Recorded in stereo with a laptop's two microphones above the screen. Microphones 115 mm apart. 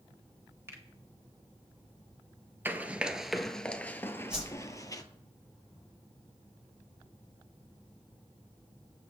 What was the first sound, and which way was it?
A finger snap, 25° right (ahead or behind).